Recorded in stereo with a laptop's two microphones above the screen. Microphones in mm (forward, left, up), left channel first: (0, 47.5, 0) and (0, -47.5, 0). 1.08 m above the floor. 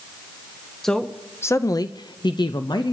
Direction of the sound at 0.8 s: 5° left (ahead or behind).